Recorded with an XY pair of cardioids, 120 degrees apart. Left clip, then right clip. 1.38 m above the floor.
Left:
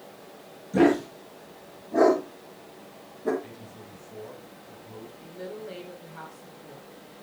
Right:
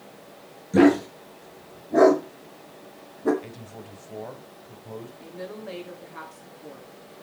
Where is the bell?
I don't hear a bell.